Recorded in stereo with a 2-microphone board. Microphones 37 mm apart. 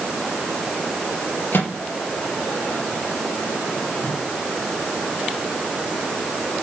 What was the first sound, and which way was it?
A microwave, 75° left (ahead or behind).